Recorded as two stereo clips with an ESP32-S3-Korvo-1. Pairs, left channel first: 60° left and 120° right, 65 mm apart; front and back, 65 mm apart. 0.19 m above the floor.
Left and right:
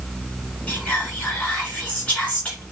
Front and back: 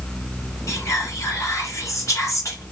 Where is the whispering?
Straight ahead, 2 m.